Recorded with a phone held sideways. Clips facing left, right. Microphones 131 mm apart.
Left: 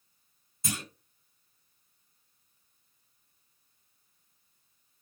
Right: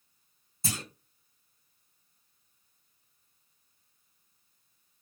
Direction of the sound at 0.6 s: 35° right (ahead or behind).